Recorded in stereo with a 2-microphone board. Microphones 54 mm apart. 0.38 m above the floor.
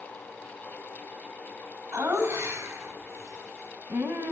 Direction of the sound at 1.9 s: 50° right (ahead or behind).